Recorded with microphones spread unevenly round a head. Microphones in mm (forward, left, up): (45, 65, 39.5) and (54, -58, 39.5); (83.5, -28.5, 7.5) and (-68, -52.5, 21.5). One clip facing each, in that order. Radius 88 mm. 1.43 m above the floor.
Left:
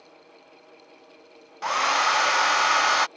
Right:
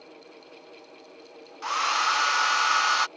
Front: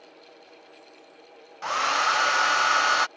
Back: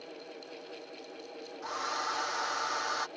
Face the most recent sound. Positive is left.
turn(degrees=55)